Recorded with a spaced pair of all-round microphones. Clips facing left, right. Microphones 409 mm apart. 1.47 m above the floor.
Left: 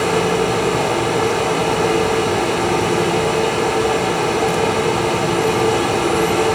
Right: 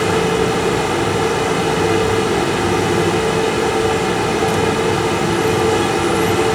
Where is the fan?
30° right (ahead or behind), 0.7 m.